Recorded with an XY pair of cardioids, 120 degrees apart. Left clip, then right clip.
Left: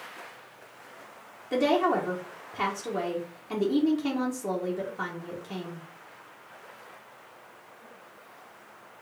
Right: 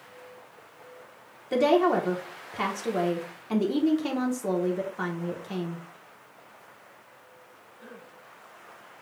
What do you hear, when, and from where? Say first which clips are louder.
1.5 s a woman speaking: right 2 dB; 20° right, 0.9 m